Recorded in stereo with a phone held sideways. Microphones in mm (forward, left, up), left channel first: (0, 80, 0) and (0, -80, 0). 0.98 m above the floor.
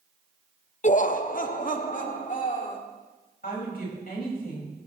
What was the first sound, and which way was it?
Laughter, 50° left (ahead or behind).